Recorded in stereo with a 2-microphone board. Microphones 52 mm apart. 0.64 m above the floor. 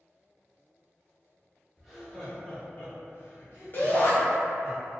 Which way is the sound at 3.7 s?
40° left (ahead or behind).